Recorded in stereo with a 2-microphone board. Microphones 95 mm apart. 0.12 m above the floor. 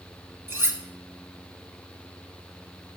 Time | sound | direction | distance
0.5 | cutlery clinking | 25° right (ahead or behind) | 1.1 m